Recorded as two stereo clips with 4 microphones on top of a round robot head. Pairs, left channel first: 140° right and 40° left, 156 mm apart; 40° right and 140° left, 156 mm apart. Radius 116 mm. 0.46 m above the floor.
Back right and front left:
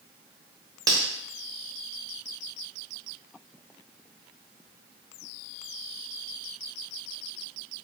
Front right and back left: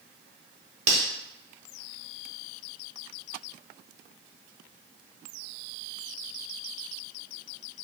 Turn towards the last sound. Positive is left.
turn(degrees=105)